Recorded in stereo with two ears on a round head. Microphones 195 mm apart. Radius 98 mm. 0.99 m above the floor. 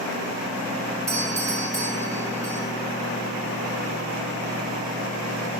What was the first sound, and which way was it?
A doorbell, 15° right (ahead or behind).